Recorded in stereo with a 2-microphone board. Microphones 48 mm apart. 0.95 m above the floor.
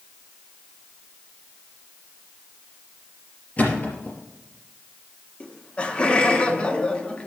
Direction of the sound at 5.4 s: 25° left (ahead or behind).